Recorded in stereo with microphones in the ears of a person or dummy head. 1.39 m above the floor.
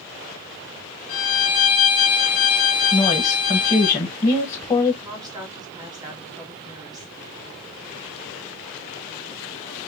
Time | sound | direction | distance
1.1 | a violin | 35° left (ahead or behind) | 1.3 m
2.9 | a woman speaking | 15° left (ahead or behind) | 1.5 m
5.0 | a woman speaking | 25° right (ahead or behind) | 1.7 m